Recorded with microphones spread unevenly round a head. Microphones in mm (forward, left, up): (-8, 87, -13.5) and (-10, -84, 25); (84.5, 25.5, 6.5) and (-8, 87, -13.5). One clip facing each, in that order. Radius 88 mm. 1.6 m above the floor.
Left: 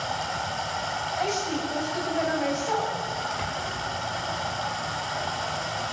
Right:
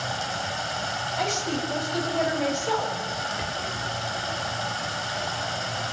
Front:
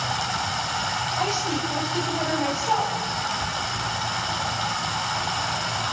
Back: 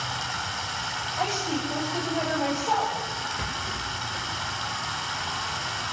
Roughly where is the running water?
Ahead right.